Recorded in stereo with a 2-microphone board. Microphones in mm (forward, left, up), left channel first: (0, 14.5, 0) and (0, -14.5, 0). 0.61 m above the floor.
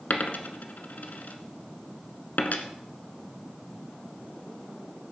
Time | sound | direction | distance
0.1 | a dropped coin | 70° left (ahead or behind) | 1.2 m